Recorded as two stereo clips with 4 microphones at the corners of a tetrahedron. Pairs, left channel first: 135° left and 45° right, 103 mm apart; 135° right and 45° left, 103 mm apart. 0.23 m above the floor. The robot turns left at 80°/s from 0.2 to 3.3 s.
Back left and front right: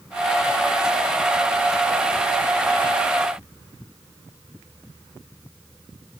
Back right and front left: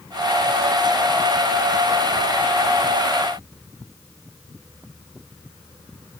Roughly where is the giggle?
No giggle in this recording.